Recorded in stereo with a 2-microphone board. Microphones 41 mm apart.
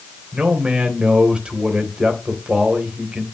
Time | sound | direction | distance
0.3 | a man speaking | 20° right (ahead or behind) | 2 m